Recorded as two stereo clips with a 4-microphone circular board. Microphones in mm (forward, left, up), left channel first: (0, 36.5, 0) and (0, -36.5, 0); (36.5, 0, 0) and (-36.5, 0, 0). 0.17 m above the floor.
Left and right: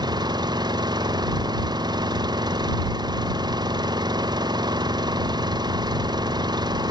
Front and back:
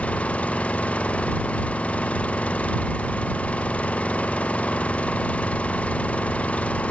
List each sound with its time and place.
0.0 s an engine running: 70° right